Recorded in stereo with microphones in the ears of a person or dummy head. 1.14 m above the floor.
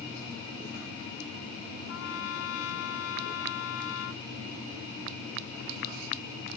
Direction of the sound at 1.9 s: 85° left.